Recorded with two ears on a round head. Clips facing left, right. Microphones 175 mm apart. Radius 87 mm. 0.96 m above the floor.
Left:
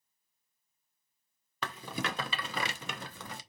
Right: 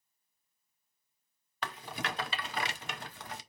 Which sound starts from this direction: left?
A rattle, at 1.6 s.